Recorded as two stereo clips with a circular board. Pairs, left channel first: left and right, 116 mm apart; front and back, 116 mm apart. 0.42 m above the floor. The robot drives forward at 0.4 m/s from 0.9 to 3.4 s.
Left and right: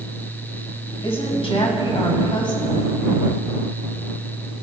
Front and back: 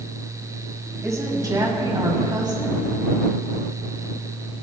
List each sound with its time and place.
1.0 s a woman speaking: 120° left, 2 m; by 2.9 s 135° left, 2.5 m